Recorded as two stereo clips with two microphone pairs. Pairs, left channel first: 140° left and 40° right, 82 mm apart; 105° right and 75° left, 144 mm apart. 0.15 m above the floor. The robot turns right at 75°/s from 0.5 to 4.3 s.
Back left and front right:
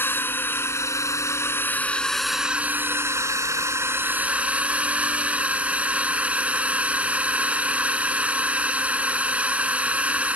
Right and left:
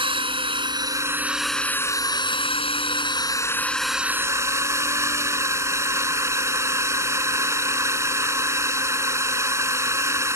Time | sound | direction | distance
0.0 | a drone | 95° left | ?